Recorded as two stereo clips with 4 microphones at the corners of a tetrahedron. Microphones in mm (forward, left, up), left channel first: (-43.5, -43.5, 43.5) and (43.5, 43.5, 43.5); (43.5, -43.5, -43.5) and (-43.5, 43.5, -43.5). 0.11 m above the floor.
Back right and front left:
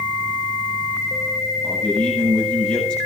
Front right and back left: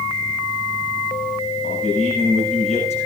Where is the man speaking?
50° right, 8.5 m.